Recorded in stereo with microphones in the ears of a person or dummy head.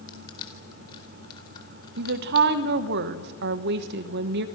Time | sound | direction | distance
0.1 | crushing | 25° left (ahead or behind) | 4 m
2.0 | a woman speaking | 55° right (ahead or behind) | 1.1 m